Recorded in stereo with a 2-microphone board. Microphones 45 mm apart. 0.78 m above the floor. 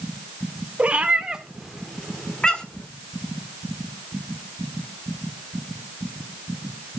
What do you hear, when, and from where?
0.8 s a cat meowing: 30° right (ahead or behind), 1.3 m; by 2.9 s 30° left (ahead or behind), 1.6 m